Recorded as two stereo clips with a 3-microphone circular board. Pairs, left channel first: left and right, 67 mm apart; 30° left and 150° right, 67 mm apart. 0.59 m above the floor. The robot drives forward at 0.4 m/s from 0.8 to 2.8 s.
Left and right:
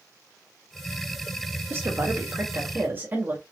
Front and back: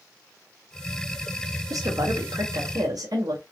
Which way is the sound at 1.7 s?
135° right.